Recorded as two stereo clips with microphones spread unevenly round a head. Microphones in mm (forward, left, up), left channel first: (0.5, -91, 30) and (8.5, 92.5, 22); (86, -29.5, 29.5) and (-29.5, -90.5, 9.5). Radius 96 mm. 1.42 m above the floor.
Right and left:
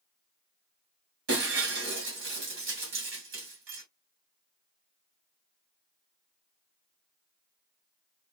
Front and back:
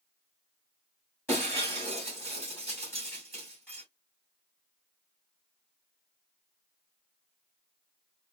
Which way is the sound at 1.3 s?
100° left.